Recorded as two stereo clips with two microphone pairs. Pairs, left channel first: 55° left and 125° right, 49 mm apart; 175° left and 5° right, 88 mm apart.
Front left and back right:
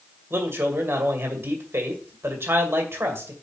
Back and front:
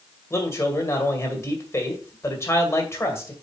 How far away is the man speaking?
About 2 m.